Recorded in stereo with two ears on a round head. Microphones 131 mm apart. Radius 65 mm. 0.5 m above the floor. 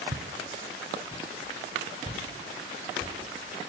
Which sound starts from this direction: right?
Footsteps, at 0.1 s.